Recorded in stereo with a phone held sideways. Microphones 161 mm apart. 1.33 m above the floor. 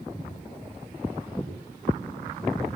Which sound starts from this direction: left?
Footsteps, at 0.1 s.